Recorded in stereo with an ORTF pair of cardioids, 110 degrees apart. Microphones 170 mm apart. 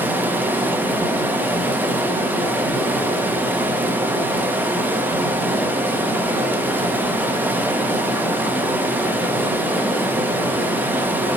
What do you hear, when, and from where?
0.0 s running water: 10° right, 1.3 m